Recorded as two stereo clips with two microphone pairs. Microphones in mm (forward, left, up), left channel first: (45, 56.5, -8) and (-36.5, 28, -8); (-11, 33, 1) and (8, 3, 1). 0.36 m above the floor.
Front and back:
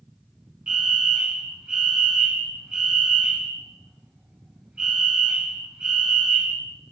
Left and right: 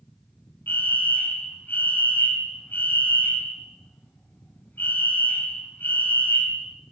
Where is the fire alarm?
120° left, 5 m.